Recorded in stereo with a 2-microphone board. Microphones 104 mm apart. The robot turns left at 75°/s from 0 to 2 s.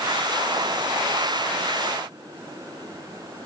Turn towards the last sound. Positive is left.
No sound to turn to.